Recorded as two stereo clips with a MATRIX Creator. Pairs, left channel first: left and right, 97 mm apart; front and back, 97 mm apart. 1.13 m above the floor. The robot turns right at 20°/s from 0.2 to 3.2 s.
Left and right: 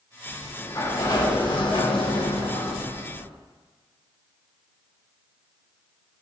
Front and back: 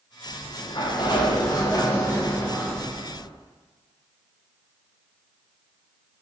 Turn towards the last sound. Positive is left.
turn(degrees=85)